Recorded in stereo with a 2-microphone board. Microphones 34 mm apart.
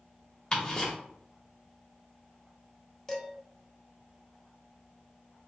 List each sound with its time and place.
0.5 s ticking: 25° left (ahead or behind), 1.2 m
3.1 s dishes clattering: 15° left (ahead or behind), 0.7 m